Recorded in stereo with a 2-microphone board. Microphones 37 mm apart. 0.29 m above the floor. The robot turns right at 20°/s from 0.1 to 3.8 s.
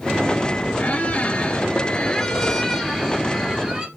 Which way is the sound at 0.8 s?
135° left.